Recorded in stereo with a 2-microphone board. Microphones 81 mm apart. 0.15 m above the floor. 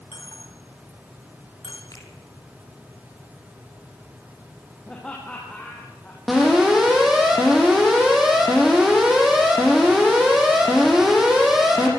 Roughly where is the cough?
No cough in this recording.